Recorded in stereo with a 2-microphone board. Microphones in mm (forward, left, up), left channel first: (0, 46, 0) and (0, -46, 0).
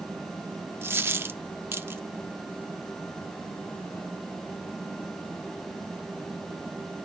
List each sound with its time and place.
0.8 s a dropped coin: 25° right (ahead or behind), 0.6 m